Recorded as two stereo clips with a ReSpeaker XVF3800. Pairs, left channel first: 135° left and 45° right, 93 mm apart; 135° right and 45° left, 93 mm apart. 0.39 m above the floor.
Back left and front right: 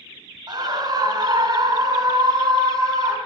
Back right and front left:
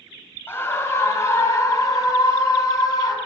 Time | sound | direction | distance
0.5 | a scream | 75° right | 2.5 m